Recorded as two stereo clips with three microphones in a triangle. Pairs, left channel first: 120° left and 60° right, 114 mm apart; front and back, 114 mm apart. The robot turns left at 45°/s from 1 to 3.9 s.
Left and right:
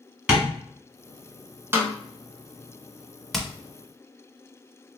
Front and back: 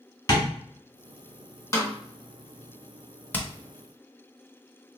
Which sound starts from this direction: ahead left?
Hammering, at 3.3 s.